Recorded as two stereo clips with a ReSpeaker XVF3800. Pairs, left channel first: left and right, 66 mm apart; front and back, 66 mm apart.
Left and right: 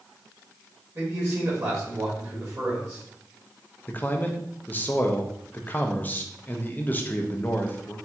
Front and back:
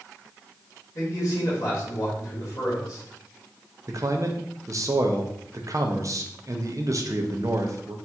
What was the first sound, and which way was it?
A man speaking, 40° right.